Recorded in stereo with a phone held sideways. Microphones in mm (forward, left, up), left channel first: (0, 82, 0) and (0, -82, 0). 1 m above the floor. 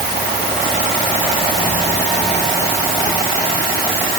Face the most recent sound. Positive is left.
No sound to turn to.